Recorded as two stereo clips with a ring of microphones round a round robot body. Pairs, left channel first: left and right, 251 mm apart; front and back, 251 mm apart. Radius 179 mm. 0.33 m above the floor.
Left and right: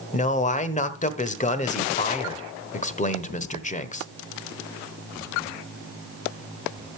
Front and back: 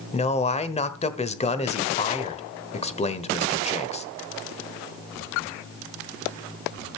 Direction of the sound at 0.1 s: 50° left.